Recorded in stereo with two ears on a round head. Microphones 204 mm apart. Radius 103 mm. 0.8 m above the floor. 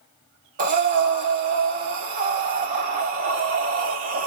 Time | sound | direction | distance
0.6 | breathing | 40° right (ahead or behind) | 1.0 m